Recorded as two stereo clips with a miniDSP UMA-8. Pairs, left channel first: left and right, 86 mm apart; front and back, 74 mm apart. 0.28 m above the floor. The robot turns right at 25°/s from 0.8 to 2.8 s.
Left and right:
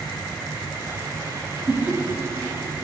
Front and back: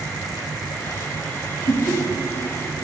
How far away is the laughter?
About 1.5 m.